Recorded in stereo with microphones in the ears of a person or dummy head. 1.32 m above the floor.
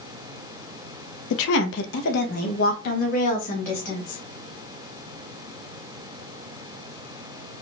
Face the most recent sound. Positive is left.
turn(degrees=40)  # may be behind; listen again after turning